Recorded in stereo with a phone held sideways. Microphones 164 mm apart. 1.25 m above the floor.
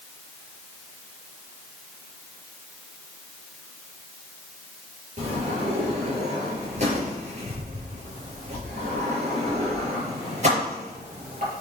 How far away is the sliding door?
About 4.5 m.